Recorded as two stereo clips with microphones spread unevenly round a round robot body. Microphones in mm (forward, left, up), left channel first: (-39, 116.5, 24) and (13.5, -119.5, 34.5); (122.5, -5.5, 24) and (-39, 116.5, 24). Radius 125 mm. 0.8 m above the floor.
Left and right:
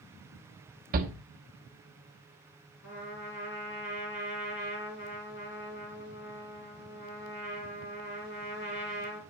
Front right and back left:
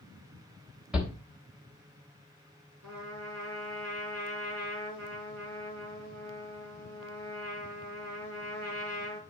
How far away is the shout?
About 1.0 m.